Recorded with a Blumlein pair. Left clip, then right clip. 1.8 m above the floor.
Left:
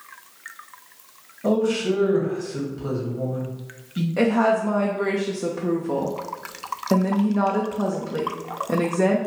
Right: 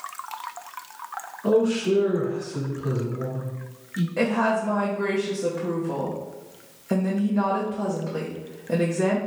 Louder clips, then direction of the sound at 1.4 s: Right 1 dB; 65° left.